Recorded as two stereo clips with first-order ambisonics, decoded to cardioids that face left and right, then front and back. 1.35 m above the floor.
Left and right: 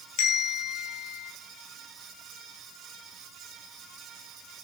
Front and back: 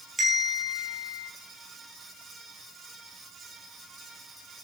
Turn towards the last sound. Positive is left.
turn(degrees=105)